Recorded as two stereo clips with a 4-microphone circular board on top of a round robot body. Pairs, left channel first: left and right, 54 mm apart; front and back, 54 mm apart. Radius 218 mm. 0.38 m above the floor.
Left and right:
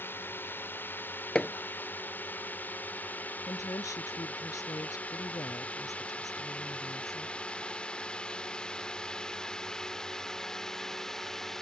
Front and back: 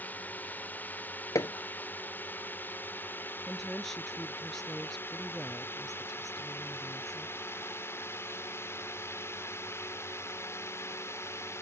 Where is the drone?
50° left; by 11.6 s 10° left.